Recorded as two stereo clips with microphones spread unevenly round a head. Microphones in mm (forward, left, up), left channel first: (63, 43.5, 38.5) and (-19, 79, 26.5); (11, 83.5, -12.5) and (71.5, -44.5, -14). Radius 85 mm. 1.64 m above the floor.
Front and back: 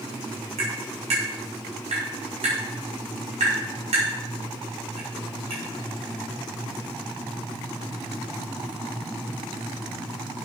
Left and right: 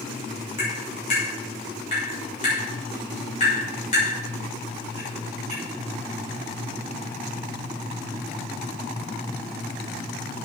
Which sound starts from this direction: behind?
Tapping, at 0.6 s.